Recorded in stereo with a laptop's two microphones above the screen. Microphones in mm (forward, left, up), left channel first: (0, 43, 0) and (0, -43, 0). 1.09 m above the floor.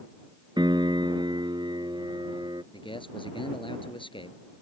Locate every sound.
0.6 s a piano: 60° right (ahead or behind)
2.7 s a man speaking: 75° left (ahead or behind)